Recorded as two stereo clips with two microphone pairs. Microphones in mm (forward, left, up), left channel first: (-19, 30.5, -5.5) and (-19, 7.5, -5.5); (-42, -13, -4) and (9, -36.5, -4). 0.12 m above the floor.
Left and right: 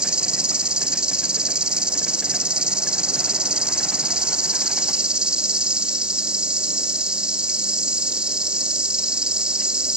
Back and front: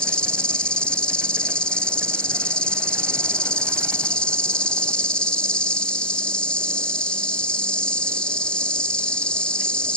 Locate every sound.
0.0 s an insect: 135° right, 0.9 m